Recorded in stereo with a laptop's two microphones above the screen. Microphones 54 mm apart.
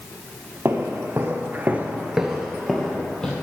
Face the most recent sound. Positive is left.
turn(degrees=15)  # may be behind; listen again after turning